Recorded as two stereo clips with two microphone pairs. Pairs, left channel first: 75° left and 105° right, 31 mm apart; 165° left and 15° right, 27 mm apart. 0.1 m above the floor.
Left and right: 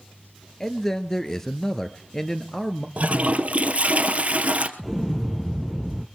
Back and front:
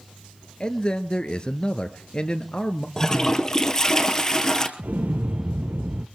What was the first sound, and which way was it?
A man speaking, 140° left.